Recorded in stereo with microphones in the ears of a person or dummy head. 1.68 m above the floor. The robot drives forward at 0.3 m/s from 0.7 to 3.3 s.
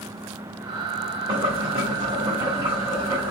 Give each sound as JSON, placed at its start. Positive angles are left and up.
{"t": 1.3, "sound": "boiling", "side_deg": -25, "distance_m": 0.8}